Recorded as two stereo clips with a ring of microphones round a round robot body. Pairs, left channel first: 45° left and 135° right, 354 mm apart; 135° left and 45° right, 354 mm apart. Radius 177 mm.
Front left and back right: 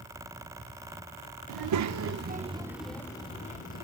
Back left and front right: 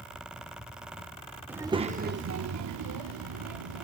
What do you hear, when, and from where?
1.5 s a child speaking: 130° right, 0.7 m; by 3.8 s 20° right, 1.0 m